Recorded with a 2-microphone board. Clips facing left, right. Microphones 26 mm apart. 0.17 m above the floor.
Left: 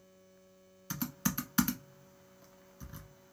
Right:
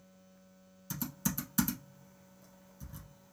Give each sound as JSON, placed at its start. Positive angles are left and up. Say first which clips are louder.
{"t": 0.9, "sound": "typing on a keyboard", "louder": "left 2 dB", "side_deg": 35, "distance_m": 1.1}